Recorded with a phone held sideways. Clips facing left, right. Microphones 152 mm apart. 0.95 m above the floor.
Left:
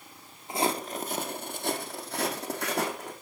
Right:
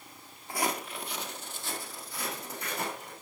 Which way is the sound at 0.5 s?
20° left (ahead or behind).